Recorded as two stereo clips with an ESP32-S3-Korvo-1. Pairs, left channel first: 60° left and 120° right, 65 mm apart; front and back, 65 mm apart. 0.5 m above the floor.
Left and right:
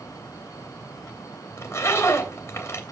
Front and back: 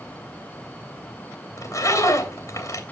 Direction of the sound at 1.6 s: 15° left.